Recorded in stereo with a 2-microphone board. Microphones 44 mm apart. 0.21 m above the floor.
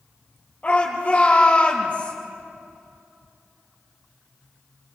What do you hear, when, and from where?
0.6 s a shout: 30° left (ahead or behind), 5.5 m